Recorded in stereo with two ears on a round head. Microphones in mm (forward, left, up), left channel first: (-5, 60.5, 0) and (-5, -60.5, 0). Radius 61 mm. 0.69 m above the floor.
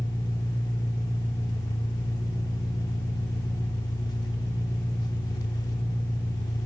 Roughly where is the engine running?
Left.